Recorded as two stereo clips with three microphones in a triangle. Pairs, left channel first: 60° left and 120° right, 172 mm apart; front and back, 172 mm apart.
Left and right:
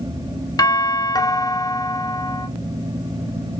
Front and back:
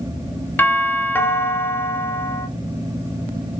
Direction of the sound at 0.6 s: 55° left.